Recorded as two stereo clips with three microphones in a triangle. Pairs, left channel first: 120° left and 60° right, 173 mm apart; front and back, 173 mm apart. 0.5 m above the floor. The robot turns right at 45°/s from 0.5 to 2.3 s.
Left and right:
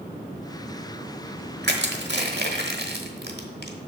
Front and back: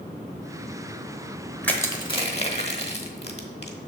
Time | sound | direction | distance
1.6 | crushing | 80° right | 1.0 m